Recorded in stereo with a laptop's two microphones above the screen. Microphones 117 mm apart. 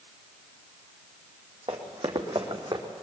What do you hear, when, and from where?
1.7 s running footsteps: 60° right (ahead or behind), 3 m; by 2.8 s 50° right (ahead or behind), 3 m